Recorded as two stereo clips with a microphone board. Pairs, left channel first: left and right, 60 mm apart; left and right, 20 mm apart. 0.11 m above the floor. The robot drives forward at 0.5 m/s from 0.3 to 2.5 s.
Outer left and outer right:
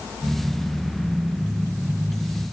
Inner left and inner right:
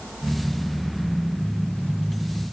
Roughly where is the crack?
No crack in this recording.